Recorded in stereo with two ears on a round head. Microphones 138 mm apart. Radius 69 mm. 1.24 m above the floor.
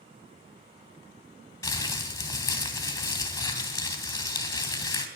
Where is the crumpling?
20° left (ahead or behind), 3 m.